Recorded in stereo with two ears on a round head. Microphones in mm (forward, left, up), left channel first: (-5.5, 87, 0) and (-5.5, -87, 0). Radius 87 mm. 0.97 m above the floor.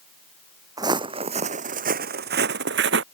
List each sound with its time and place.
0.8 s footsteps: 20° right (ahead or behind); by 3.0 s 65° right (ahead or behind)